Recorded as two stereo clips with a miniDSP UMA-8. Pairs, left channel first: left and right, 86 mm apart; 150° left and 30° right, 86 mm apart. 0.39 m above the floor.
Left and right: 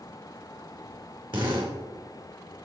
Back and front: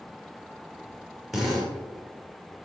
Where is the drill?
120° right, 5.5 m.